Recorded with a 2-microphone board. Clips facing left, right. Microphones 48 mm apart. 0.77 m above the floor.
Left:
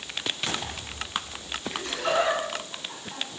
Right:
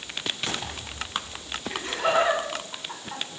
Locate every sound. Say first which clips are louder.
1.7 s laughter: right 3 dB; 35° right (ahead or behind), 7.5 m